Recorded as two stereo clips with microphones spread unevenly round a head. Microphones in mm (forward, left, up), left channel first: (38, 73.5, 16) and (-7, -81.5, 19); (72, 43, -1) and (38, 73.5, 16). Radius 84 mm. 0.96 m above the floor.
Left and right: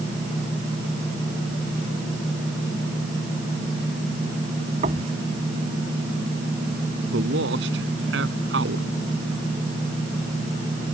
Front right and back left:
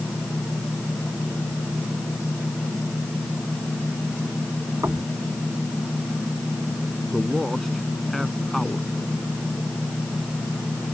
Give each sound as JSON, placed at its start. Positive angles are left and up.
{"t": 4.8, "sound": "knocking", "azimuth_deg": -160}
{"t": 7.1, "sound": "a man speaking", "azimuth_deg": -130}